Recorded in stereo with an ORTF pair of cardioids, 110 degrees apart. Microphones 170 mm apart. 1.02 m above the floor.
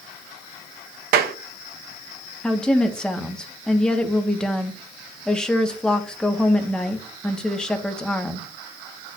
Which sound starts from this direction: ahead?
A woman speaking, at 2.4 s.